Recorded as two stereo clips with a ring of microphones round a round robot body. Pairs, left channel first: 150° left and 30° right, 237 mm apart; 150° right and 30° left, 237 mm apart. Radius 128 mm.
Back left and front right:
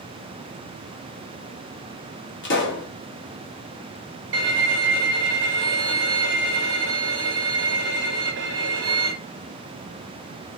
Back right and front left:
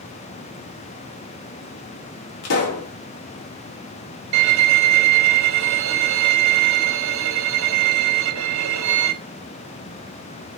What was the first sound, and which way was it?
A pop, 170° right.